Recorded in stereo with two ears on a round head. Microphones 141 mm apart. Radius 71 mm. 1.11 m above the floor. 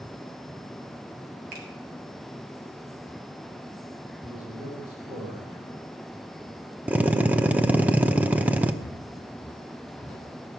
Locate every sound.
1.5 s a finger snap: 55° right (ahead or behind), 2.5 m
4.2 s a man speaking: 15° right (ahead or behind), 6 m
6.9 s a drill: 10° right (ahead or behind), 0.7 m
8.8 s footsteps: 15° left (ahead or behind), 1.5 m; by 10.3 s 10° left (ahead or behind), 2 m